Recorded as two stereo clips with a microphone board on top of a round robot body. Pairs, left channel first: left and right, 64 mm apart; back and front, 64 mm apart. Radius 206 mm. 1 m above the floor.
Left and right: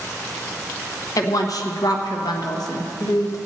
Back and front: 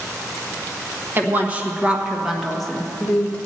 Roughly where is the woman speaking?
Ahead left.